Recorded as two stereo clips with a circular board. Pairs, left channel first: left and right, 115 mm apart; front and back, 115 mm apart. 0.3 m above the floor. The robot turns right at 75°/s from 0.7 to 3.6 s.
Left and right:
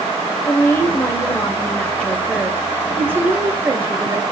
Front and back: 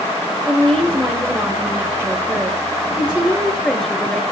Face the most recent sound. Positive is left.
turn(degrees=-80)